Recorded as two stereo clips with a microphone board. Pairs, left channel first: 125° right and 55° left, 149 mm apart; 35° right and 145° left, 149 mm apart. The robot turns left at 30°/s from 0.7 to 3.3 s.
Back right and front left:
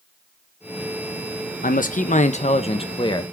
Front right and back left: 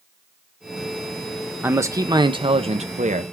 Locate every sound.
1.6 s a man speaking: 140° right, 1.0 m; by 3.2 s 175° left, 1.0 m